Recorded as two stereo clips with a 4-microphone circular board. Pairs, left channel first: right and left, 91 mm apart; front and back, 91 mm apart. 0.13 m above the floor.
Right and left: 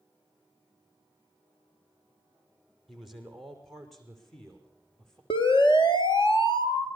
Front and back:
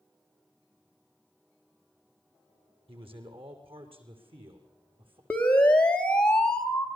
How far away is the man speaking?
About 6 m.